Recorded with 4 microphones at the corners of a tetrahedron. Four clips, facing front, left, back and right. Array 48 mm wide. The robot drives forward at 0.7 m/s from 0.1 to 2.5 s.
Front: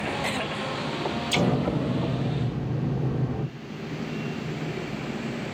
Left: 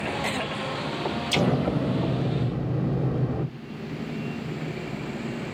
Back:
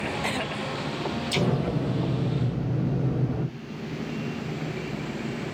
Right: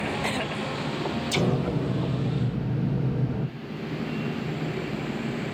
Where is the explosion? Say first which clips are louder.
Left 3 dB, front 2 dB; 60° left, 2.0 m; by 3.5 s 85° left, 1.8 m.